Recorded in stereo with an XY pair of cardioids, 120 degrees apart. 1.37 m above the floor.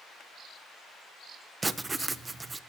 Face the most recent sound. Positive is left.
turn(degrees=-20)